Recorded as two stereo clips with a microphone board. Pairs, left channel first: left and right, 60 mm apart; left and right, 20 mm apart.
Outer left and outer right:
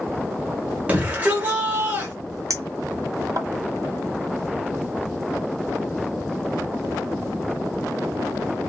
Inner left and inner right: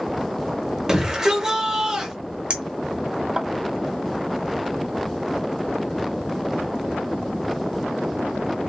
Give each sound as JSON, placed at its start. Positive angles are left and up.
{"t": 0.9, "sound": "a shout", "side_deg": -25, "distance_m": 1.8}
{"t": 2.5, "sound": "a clink", "side_deg": -60, "distance_m": 1.4}